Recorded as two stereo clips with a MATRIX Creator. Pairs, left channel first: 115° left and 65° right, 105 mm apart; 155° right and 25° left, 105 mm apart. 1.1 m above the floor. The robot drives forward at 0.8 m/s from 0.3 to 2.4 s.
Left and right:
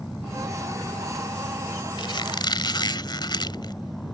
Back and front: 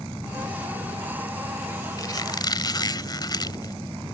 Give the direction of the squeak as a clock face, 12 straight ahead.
7 o'clock.